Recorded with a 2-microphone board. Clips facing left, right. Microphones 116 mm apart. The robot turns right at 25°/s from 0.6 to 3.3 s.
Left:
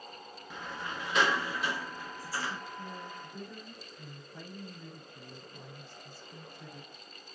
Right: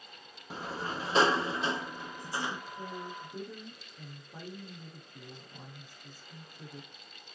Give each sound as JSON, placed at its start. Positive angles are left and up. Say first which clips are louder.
{"t": 0.5, "sound": "a sliding door", "louder": "right 4 dB", "azimuth_deg": -80, "distance_m": 0.5}
{"t": 2.5, "sound": "a woman speaking", "louder": "right 1 dB", "side_deg": -65, "distance_m": 6.5}